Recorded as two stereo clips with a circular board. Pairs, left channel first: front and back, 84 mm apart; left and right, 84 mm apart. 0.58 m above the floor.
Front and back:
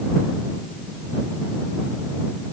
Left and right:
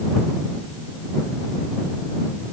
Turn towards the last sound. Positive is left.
No sound to turn to.